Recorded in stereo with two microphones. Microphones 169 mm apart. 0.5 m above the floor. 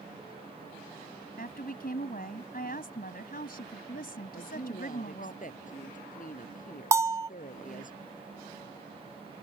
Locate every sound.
1.4 s a woman speaking: 60° left (ahead or behind)
4.3 s a woman speaking: 50° left (ahead or behind)
6.9 s a bell: 15° right (ahead or behind)